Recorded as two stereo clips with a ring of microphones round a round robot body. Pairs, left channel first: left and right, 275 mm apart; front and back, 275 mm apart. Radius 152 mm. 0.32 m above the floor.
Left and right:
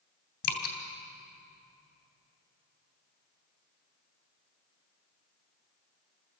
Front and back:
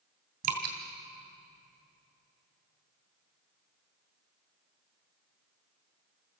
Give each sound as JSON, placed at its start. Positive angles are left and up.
{"t": 0.4, "sound": "dripping", "azimuth_deg": 125, "distance_m": 2.5}